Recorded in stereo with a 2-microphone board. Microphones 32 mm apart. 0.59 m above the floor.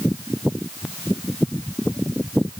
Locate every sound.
Only background noise.